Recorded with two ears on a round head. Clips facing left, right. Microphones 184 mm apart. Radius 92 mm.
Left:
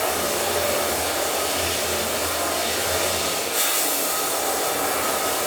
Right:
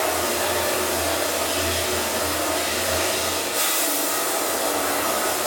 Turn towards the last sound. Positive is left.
turn(degrees=80)